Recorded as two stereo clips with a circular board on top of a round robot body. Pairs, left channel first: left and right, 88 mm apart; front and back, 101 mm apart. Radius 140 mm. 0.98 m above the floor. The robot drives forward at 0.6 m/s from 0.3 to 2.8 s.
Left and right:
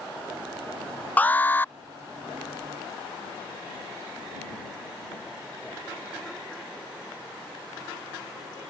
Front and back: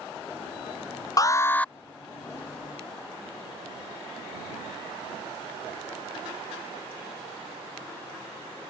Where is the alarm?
25° left; by 1.7 s 70° left.